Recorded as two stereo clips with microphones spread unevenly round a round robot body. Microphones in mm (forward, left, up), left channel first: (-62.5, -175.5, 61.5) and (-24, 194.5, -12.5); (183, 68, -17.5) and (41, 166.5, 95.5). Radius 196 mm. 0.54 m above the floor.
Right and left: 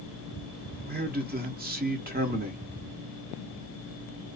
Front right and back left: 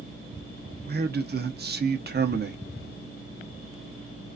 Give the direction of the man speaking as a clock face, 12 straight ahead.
9 o'clock.